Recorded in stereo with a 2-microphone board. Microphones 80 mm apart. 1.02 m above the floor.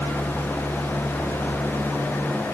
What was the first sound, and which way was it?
Only background noise.